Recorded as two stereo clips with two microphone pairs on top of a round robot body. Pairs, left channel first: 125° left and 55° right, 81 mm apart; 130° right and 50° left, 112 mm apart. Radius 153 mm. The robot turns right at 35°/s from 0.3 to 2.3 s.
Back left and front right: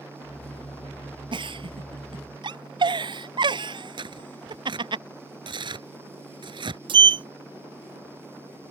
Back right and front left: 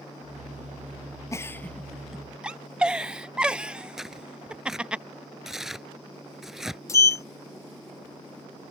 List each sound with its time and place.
1.3 s a giggle: 70° right; by 5.0 s 35° right
4.0 s tearing paper: 40° right
6.9 s a sliding door: 70° right